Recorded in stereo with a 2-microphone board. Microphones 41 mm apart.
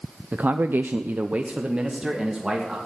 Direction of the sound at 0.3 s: 40° right (ahead or behind).